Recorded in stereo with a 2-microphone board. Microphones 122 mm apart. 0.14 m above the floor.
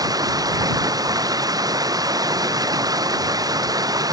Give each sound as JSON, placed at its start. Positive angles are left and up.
{"t": 0.0, "sound": "running water", "side_deg": -30}